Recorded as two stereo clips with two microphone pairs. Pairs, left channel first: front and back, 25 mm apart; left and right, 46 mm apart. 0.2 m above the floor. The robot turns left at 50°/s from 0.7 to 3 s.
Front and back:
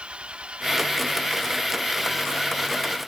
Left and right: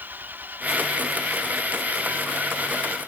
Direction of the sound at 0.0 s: 140° right.